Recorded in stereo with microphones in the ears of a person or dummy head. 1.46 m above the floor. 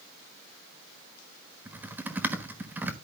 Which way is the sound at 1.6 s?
10° right (ahead or behind).